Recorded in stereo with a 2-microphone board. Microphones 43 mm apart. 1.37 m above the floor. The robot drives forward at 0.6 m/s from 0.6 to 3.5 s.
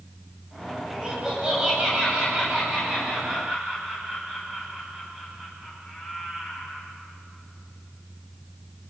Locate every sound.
0.9 s laughter: 20° right (ahead or behind), 8.5 m; by 6.8 s 15° right (ahead or behind), 10 m